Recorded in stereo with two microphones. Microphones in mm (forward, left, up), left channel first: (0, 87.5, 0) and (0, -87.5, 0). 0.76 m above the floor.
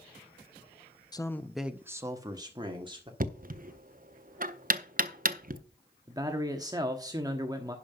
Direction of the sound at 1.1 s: 20° left (ahead or behind).